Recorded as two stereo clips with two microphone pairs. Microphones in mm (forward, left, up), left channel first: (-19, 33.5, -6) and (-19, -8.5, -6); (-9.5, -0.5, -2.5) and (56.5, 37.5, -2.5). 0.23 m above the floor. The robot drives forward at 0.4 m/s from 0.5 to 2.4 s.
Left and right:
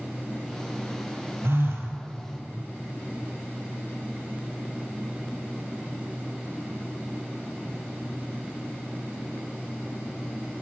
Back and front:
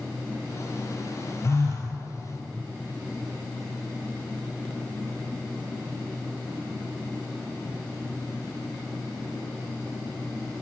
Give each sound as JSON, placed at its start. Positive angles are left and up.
{"t": 1.4, "sound": "a phone buzzing", "azimuth_deg": -95, "distance_m": 1.1}